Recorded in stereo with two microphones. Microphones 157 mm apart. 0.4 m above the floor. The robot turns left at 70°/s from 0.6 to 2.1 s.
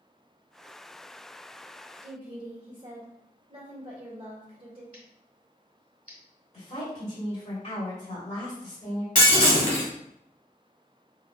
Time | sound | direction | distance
2.0 | a woman speaking | 40° right (ahead or behind) | 1.3 m
4.9 | scissors | 60° right (ahead or behind) | 1.4 m
6.5 | a woman speaking | 50° left (ahead or behind) | 2 m
9.2 | breaking glass | 65° left (ahead or behind) | 1.9 m